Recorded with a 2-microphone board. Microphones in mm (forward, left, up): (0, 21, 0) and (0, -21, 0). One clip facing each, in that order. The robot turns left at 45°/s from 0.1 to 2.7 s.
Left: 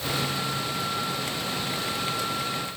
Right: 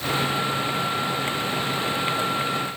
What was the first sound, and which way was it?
Only background noise.